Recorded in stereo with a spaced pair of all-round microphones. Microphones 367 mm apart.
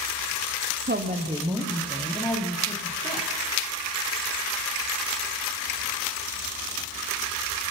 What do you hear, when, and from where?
0.9 s a woman speaking: 30° right (ahead or behind), 1.0 m; by 3.3 s 20° left (ahead or behind), 2.5 m